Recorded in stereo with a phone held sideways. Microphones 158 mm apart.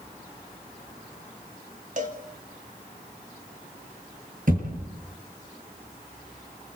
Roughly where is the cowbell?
Right.